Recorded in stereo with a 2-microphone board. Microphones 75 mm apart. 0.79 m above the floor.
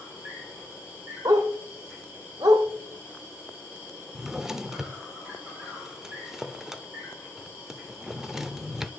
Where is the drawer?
5° right (ahead or behind), 0.6 m.